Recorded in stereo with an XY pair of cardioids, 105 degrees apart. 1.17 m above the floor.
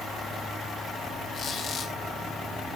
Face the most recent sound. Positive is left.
turn(degrees=45)